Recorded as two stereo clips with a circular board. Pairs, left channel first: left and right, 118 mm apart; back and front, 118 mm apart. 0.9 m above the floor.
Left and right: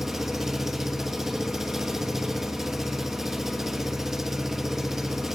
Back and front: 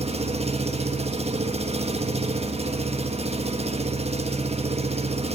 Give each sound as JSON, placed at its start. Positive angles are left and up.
{"t": 0.0, "sound": "an engine running", "azimuth_deg": -5, "distance_m": 1.0}